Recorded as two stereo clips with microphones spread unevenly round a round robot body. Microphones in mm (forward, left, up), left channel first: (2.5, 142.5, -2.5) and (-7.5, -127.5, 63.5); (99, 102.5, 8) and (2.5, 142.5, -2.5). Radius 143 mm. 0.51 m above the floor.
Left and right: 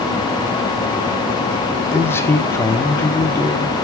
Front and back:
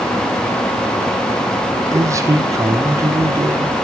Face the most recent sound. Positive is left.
turn(degrees=140)